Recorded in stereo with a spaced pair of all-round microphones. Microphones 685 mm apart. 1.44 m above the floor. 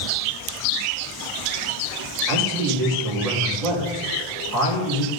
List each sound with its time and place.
2.3 s a man speaking: 80° right, 6.5 m